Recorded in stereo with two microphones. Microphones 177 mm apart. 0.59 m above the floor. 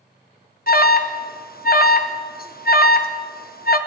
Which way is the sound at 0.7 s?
60° left (ahead or behind).